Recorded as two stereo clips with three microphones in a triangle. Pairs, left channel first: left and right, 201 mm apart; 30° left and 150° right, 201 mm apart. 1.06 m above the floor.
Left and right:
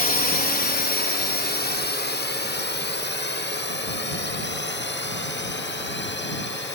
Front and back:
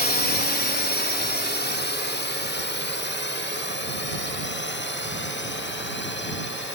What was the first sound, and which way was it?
A drone, 55° left.